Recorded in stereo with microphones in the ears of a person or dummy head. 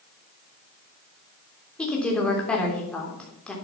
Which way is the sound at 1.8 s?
Centre (ahead or behind).